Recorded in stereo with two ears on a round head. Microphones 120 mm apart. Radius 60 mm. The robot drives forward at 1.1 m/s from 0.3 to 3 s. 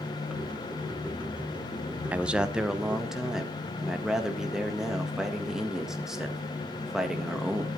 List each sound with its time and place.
2.1 s a man speaking: 10° right (ahead or behind), 0.5 m; by 7.7 s 5° right (ahead or behind), 1.5 m